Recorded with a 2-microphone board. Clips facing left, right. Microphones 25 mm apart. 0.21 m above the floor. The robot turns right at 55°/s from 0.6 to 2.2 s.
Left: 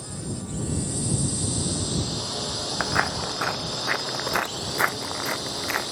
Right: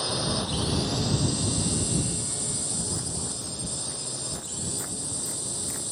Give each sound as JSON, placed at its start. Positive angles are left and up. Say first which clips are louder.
{"t": 0.0, "sound": "a drone", "louder": "right 7 dB", "azimuth_deg": -55}
{"t": 2.8, "sound": "footsteps", "louder": "left 9 dB", "side_deg": 75}